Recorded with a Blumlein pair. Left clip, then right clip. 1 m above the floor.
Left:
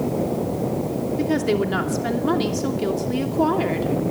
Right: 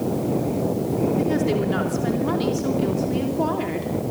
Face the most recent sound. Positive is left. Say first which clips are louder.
# left 1 dB
turn(degrees=15)